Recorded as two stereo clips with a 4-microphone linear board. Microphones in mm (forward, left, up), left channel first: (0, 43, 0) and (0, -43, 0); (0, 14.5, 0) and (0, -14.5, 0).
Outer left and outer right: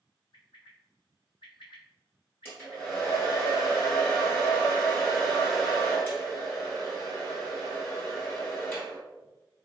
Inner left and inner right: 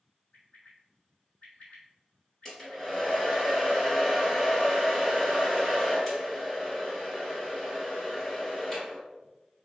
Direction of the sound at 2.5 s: 25° left (ahead or behind).